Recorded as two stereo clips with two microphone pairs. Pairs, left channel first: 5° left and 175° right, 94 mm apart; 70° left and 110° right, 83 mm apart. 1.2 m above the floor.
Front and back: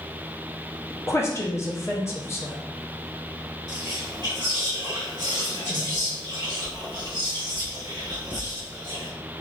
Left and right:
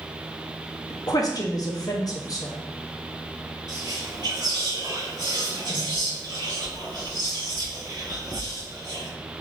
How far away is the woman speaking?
About 0.6 m.